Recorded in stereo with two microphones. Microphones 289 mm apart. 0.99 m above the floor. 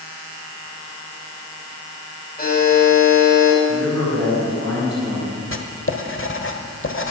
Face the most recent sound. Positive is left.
turn(degrees=45)  # may be behind; listen again after turning